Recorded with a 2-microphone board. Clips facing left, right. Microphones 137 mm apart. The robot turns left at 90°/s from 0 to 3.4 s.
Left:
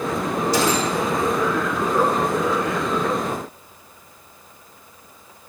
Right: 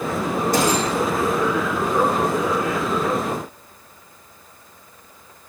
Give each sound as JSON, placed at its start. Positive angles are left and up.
{"t": 0.5, "sound": "a gunshot", "azimuth_deg": -125, "distance_m": 5.0}